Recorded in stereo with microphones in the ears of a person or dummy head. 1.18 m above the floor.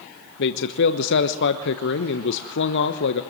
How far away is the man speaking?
About 1.0 m.